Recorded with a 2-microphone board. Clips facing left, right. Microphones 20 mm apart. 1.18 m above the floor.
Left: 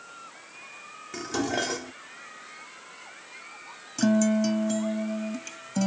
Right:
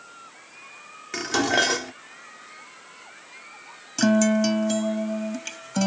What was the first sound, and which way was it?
Dishes clattering, 40° right (ahead or behind).